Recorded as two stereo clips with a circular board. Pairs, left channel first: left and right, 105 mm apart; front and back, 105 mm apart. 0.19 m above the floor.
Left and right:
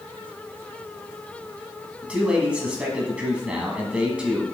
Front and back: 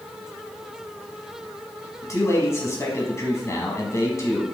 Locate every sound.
2.0 s a man speaking: 20° right, 1.2 m